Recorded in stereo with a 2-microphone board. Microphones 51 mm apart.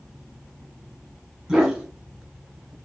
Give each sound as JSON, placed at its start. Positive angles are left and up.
{"t": 1.5, "sound": "a dog barking", "side_deg": -15, "distance_m": 1.4}